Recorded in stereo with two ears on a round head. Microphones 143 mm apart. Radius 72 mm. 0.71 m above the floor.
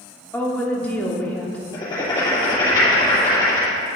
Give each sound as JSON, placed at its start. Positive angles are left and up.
{"t": 0.3, "sound": "a woman speaking", "side_deg": 10, "distance_m": 1.3}
{"t": 1.7, "sound": "writing", "side_deg": 30, "distance_m": 3.0}